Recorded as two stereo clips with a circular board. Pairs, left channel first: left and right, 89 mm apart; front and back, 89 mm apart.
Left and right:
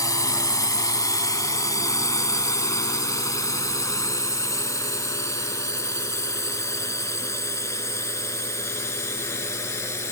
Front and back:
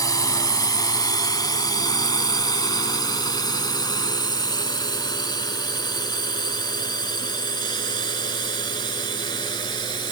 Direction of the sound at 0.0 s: 45° left.